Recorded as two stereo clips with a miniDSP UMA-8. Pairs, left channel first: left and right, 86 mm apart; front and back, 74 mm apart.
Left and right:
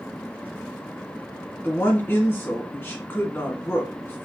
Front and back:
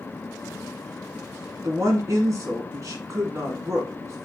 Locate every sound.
1.6 s a woman speaking: 150° left, 1.9 m